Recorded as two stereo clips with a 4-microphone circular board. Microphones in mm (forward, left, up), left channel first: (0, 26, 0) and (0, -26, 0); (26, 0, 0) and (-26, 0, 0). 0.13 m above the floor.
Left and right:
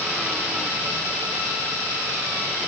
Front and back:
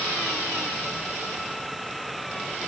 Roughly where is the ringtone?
I don't hear a ringtone.